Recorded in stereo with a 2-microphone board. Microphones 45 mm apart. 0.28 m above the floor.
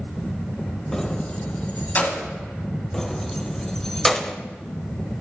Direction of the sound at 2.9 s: 10° left (ahead or behind).